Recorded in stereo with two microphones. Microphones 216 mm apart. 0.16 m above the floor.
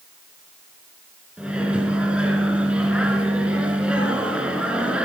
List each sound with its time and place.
1.4 s a microwave: 5° right (ahead or behind), 1.9 m